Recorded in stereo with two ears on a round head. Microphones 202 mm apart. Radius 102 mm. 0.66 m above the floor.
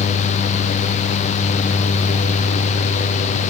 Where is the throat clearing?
I don't hear throat clearing.